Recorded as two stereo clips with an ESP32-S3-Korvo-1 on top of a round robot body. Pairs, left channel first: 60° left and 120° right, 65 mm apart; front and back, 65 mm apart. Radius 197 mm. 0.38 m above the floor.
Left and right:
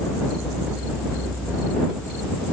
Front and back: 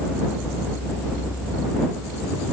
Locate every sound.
Only background noise.